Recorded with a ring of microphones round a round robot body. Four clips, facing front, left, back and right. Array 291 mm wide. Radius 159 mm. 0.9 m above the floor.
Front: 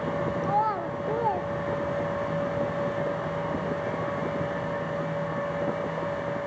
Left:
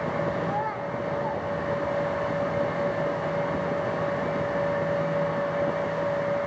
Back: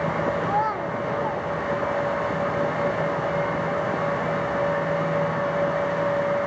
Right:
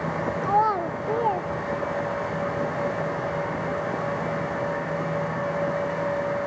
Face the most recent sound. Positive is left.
turn(degrees=-55)